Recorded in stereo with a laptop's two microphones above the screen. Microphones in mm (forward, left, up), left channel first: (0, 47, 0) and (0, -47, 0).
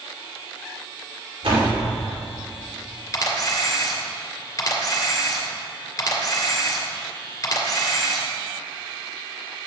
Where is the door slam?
70° right (ahead or behind), 2.5 m.